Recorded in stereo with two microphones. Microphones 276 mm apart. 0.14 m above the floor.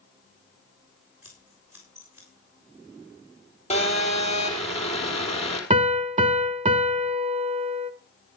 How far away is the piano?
About 0.6 m.